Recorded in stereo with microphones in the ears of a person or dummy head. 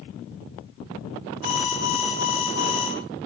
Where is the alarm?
90° left, 7.5 m.